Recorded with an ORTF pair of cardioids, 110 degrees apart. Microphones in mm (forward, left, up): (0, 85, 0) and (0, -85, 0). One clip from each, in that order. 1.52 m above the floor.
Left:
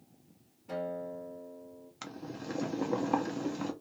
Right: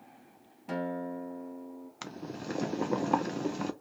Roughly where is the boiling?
Ahead.